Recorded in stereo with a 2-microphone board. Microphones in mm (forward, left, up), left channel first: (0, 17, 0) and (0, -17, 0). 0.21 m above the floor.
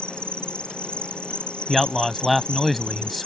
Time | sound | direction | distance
0.0 | an insect | 35° left (ahead or behind) | ?
1.7 | a man speaking | centre (ahead or behind) | ?